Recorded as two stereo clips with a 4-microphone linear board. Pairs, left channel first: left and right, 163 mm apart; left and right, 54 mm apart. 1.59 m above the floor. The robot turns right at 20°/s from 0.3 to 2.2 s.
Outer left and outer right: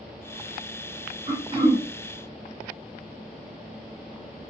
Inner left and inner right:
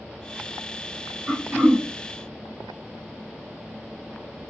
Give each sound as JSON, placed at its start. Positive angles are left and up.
{"t": 1.3, "sound": "throat clearing", "side_deg": -30, "distance_m": 1.1}